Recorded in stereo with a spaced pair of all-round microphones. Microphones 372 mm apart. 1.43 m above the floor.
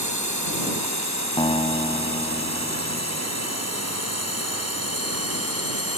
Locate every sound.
0.0 s a drone: 55° right (ahead or behind); by 6.0 s 40° right (ahead or behind)
1.4 s a guitar: 15° left (ahead or behind)